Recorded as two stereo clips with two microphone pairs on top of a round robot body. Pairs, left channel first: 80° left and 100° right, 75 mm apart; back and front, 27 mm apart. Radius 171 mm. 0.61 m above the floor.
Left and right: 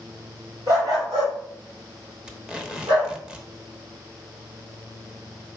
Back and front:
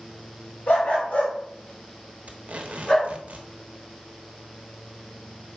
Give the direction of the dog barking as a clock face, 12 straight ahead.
5 o'clock.